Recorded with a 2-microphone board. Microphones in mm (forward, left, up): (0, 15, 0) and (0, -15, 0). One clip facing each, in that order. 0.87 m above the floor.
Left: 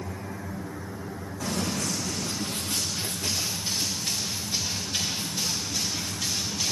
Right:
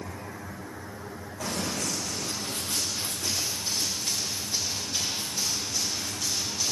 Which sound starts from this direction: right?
Running footsteps, at 1.4 s.